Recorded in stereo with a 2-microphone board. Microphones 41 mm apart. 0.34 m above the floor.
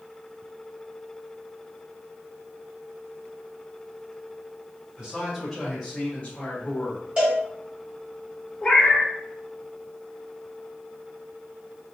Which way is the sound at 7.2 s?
25° right (ahead or behind).